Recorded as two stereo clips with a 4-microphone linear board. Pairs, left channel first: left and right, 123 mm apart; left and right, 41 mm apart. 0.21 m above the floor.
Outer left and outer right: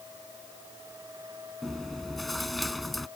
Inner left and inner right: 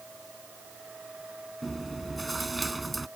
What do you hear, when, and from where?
1.6 s chewing: centre (ahead or behind)